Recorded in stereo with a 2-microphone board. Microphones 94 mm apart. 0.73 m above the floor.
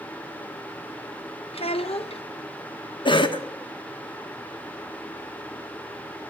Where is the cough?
55° left (ahead or behind), 1.2 m.